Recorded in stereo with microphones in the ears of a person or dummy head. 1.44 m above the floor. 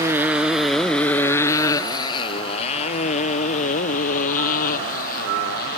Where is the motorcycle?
15° right (ahead or behind); by 5.8 s 55° left (ahead or behind).